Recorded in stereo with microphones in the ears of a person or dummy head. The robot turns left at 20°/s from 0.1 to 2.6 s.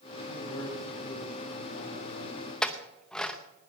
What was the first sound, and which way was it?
A man speaking, 95° left.